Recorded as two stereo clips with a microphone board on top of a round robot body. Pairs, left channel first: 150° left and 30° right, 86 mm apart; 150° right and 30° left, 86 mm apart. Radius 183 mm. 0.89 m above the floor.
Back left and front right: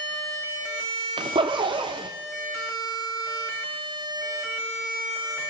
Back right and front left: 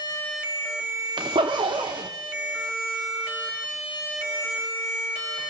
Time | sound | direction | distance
1.2 | a zipper | straight ahead | 0.6 m